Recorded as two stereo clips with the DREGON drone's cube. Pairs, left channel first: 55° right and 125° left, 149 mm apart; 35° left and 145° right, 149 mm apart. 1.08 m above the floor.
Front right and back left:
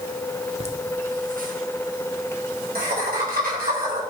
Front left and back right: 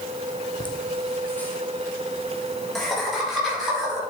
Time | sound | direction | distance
0.6 | laughter | 85° left | 1.1 m